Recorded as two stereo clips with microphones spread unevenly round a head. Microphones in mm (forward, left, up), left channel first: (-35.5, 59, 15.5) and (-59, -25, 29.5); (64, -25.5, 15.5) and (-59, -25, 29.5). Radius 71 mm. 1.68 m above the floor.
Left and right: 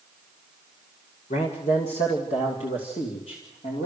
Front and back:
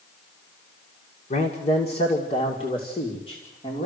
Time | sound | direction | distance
1.3 | a man speaking | 45° left | 1.7 m